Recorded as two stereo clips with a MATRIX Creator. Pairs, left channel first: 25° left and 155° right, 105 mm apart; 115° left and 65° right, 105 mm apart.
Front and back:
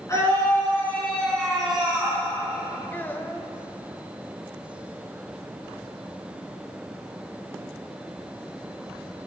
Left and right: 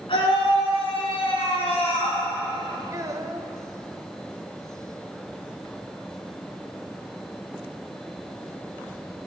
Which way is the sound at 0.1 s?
85° left.